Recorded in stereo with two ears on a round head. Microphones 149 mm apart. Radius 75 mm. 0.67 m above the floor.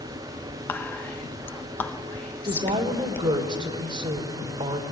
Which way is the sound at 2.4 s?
30° right (ahead or behind).